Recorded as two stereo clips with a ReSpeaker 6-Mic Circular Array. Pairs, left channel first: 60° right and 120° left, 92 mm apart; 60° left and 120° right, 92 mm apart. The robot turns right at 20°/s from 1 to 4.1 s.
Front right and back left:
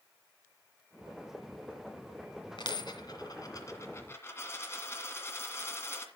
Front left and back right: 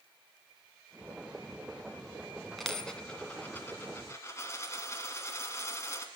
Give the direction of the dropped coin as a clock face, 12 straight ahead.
1 o'clock.